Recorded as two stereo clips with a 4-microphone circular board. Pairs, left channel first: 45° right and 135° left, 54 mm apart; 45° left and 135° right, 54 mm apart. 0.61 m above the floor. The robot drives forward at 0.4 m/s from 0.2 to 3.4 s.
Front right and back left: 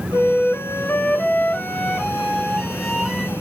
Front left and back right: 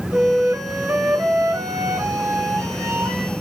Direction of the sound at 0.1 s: 80° right.